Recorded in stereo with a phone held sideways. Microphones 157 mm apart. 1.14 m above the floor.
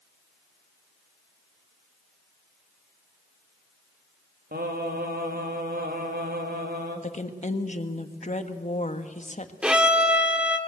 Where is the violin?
5° right (ahead or behind), 1.6 m.